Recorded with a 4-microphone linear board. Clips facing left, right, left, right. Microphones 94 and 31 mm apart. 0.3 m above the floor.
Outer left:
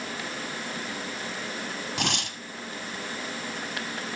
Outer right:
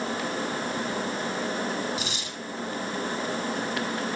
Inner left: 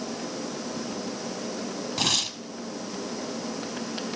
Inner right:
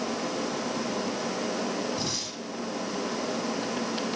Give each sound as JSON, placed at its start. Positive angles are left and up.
{"t": 2.0, "sound": "tearing paper", "side_deg": 75, "distance_m": 1.2}